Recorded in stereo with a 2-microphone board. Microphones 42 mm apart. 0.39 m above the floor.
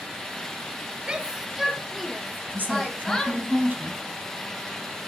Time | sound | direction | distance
1.1 | a shout | 20° right (ahead or behind) | 0.8 m
2.5 | a woman speaking | 45° right (ahead or behind) | 3 m